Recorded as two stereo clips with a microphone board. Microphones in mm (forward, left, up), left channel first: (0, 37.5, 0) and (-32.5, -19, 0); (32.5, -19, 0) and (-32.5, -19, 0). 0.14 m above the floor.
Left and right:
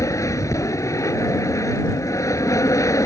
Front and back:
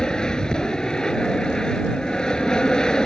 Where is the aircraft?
80° left.